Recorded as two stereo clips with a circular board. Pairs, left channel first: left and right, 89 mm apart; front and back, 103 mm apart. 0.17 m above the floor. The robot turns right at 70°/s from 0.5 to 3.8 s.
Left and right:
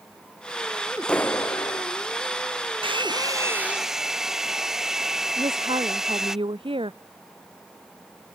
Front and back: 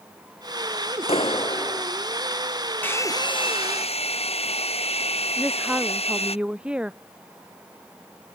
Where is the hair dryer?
70° right; by 6.4 s 5° right.